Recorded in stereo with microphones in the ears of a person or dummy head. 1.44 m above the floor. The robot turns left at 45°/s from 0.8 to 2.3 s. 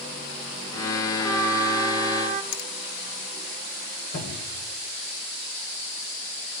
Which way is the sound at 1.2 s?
5° left.